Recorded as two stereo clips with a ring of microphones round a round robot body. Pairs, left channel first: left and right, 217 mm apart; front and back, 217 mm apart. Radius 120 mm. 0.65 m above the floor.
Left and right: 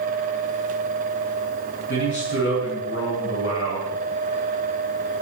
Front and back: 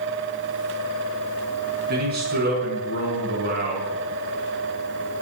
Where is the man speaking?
135° left, 6 m.